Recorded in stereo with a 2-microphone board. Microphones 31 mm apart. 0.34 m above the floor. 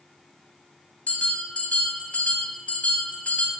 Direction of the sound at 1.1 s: 60° left (ahead or behind).